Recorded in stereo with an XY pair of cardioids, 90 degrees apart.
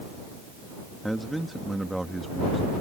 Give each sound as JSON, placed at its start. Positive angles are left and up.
{"t": 1.0, "sound": "a man speaking", "azimuth_deg": -10}